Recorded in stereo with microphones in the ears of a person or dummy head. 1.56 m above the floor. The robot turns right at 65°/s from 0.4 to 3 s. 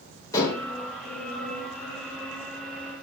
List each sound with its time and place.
0.3 s dishes clattering: 15° left (ahead or behind), 4 m; by 0.7 s 35° left (ahead or behind), 4 m